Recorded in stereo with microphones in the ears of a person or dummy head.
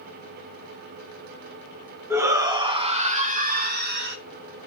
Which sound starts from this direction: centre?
A shout, at 2.1 s.